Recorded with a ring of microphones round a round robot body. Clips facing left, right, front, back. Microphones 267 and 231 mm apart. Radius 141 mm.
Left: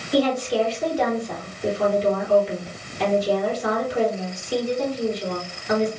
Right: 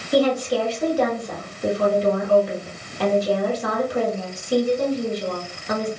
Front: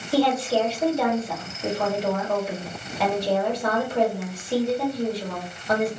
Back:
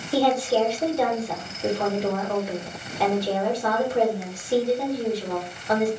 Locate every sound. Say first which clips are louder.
0.1 s a woman speaking: right 1 dB, even; 90° right, 1.6 m